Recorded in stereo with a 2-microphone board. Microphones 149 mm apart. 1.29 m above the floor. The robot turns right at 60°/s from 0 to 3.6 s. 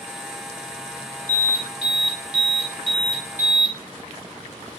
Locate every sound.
1.3 s an alarm: 145° right, 1.3 m; by 3.8 s 10° right, 1.3 m